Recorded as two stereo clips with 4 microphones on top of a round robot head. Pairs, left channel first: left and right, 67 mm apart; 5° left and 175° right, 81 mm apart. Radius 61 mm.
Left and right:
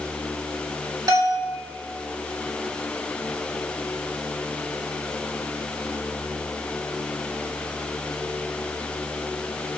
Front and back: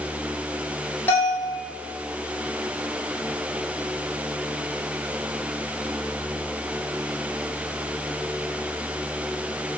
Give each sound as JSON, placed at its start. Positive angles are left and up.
{"t": 1.1, "sound": "a bell", "azimuth_deg": -65, "distance_m": 5.0}